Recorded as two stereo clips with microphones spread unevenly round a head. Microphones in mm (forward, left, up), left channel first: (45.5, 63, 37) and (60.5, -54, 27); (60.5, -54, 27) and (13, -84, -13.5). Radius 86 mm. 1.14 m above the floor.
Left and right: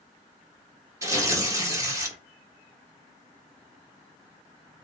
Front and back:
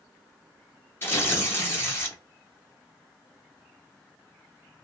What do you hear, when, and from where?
1.0 s tearing paper: 20° right, 1.3 m